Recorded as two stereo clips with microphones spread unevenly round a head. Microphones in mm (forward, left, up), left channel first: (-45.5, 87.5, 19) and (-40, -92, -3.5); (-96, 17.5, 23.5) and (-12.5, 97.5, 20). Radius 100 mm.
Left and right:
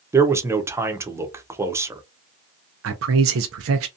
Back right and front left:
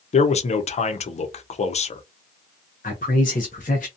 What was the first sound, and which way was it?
A man speaking, 165° right.